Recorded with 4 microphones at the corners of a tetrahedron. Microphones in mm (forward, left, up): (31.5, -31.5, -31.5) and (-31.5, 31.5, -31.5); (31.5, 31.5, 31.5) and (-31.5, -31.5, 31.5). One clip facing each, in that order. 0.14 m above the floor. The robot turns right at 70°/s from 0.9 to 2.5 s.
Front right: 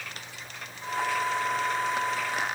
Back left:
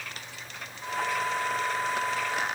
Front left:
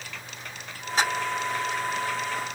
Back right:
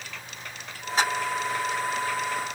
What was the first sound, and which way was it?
Only background noise.